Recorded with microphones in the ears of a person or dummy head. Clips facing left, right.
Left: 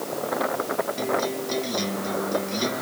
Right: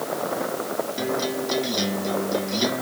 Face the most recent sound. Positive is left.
turn(degrees=-15)  # may be behind; listen again after turning